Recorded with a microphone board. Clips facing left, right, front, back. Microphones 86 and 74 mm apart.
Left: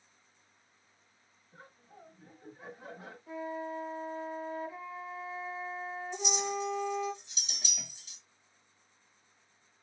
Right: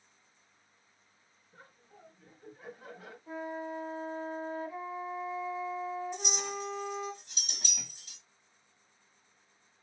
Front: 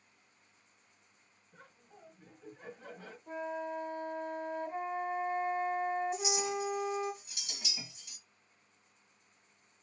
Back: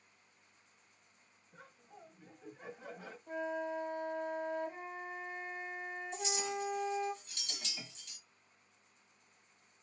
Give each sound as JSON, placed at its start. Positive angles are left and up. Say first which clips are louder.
{"t": 1.5, "sound": "laughter", "louder": "left 2 dB, back 1 dB", "azimuth_deg": 115, "distance_m": 1.0}
{"t": 3.3, "sound": "a flute", "louder": "even, even", "azimuth_deg": -20, "distance_m": 1.4}
{"t": 6.1, "sound": "a clink", "louder": "left 4 dB, front 4 dB", "azimuth_deg": -75, "distance_m": 1.4}